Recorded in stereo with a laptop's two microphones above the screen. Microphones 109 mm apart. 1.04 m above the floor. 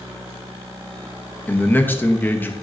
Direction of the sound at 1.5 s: 15° left (ahead or behind).